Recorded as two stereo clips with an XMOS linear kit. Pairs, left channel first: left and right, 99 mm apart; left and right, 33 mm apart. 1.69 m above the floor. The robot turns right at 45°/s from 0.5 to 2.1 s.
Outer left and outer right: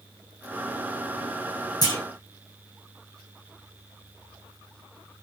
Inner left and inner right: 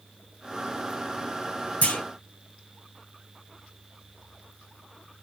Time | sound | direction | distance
1.8 | a clunk | 45° left (ahead or behind) | 2.5 m